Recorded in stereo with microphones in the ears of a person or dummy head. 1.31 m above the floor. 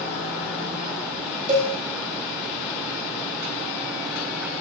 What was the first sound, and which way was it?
A cowbell, 30° right (ahead or behind).